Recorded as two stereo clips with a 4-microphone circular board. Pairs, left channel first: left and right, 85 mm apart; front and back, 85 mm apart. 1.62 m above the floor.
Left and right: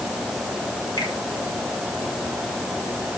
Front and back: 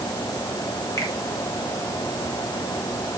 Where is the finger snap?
50° left, 5 m.